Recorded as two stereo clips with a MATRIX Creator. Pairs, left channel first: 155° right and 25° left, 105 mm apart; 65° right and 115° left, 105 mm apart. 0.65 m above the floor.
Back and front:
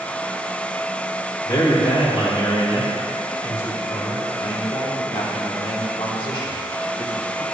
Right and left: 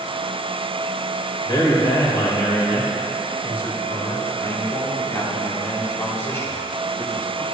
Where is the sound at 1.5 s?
115° right, 2 m.